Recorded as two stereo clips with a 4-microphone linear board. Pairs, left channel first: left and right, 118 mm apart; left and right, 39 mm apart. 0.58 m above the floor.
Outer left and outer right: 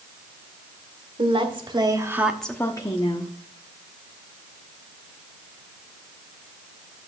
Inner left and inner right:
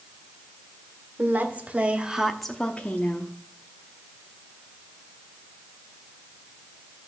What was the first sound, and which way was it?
A woman speaking, 50° right (ahead or behind).